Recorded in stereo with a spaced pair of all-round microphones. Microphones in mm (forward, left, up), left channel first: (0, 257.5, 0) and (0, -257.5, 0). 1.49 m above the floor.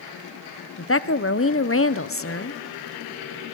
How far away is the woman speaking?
About 0.8 m.